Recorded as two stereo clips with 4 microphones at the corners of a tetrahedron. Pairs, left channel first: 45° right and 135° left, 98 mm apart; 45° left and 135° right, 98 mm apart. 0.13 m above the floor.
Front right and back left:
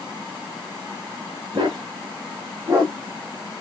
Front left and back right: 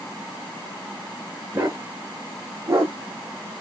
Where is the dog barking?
160° left, 3 m; by 3.0 s 165° left, 2 m.